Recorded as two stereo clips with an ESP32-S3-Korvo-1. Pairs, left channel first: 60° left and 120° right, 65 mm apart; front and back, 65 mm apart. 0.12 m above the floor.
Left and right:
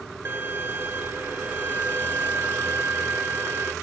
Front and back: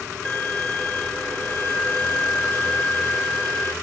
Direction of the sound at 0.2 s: 75° right.